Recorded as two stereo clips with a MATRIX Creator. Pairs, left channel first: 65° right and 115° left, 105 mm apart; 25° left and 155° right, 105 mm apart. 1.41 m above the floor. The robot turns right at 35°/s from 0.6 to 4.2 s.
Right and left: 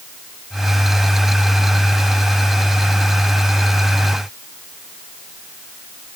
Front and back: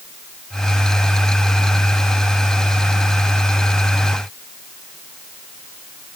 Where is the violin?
No violin in this recording.